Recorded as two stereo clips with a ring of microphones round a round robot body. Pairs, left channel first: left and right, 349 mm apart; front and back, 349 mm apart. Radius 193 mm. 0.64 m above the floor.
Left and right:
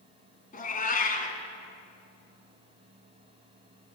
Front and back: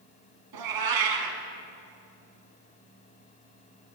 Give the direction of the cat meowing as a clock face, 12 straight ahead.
7 o'clock.